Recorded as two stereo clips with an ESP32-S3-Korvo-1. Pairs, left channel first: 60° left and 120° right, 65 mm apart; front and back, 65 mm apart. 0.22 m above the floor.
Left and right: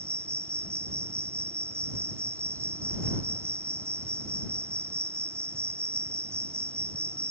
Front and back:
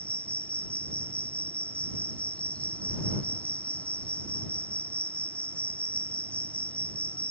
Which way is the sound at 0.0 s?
70° right.